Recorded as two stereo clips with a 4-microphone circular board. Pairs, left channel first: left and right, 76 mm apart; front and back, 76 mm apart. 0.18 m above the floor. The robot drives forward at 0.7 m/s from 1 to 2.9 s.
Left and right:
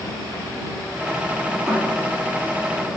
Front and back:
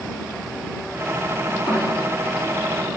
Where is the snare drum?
Straight ahead, 6.5 m.